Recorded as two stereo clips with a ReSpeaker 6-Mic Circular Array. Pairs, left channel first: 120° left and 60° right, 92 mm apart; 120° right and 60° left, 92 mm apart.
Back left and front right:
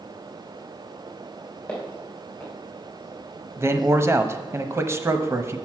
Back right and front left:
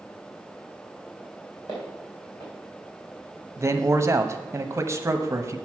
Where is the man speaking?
Straight ahead, 0.8 m.